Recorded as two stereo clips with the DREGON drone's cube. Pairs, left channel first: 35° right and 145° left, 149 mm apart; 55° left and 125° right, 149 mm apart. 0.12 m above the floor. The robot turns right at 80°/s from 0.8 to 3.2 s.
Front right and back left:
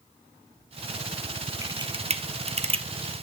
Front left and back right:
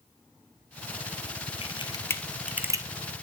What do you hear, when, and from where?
1.6 s a camera shutter: 85° left, 0.8 m; by 2.9 s 175° right, 0.8 m